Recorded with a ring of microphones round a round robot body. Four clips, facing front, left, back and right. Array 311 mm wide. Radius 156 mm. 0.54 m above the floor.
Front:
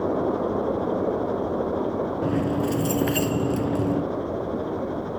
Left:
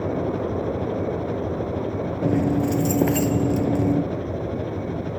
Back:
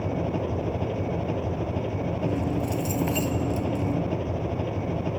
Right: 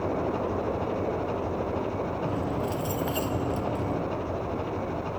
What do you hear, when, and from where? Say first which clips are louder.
0.0 s an engine running: left 3 dB, front 5 dB; 145° left
2.2 s keys jangling: left 13 dB, front 3 dB; 75° left